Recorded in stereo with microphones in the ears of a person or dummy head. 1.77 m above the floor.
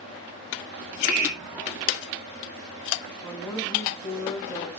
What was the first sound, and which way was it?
A hiss, 5° right (ahead or behind).